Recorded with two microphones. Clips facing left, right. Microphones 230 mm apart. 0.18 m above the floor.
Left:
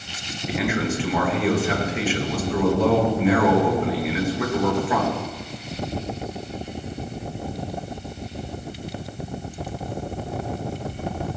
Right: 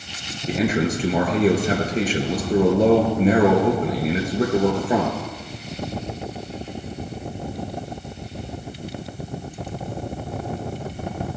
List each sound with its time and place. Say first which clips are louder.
0.5 s a man speaking: right 3 dB; 40° right (ahead or behind), 3 m